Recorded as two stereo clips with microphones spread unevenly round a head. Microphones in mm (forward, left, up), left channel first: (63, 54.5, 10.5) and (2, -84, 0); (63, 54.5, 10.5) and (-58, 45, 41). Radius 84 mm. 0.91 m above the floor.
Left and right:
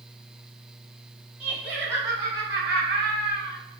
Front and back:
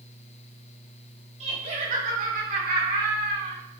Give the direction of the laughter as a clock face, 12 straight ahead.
7 o'clock.